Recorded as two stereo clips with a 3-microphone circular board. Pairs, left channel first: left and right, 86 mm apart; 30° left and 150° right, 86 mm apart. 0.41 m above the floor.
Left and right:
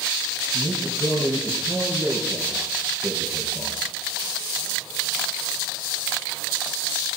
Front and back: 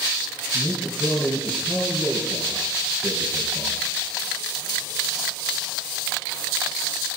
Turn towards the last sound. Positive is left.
turn(degrees=-50)